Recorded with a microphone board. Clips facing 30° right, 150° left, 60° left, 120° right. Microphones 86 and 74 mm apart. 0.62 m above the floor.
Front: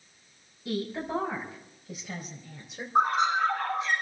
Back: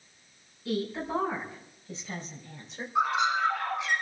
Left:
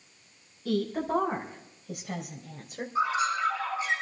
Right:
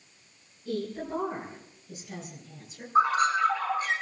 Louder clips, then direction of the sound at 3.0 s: Front 2 dB, right 5 dB; 75° right.